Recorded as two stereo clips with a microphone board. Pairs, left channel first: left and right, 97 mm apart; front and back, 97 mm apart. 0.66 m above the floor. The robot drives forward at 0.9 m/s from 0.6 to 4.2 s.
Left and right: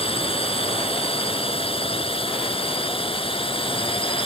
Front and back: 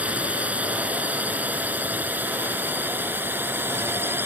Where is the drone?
105° left; by 4.3 s 110° left.